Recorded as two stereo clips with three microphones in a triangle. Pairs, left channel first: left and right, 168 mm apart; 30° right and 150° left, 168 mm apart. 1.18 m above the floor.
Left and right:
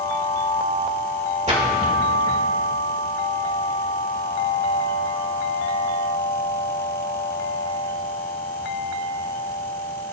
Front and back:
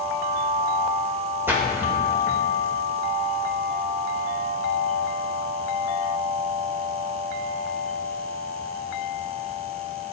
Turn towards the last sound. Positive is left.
turn(degrees=-135)